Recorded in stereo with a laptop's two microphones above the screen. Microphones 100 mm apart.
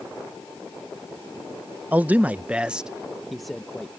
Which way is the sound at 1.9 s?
15° right (ahead or behind).